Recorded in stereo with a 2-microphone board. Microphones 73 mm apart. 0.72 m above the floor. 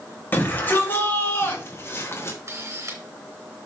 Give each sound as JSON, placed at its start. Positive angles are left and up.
{"t": 0.3, "sound": "a shout", "side_deg": 25, "distance_m": 3.5}
{"t": 2.3, "sound": "a camera shutter", "side_deg": -45, "distance_m": 3.0}